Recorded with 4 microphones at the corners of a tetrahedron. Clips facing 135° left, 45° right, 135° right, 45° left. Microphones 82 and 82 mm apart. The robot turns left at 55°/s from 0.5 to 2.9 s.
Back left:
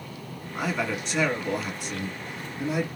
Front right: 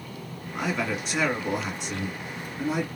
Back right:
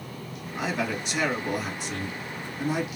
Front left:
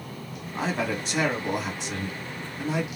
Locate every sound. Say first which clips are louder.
0.6 s a man speaking: even, front left 1 dB; 60° left, 1.9 m; by 2.9 s 65° right, 1.9 m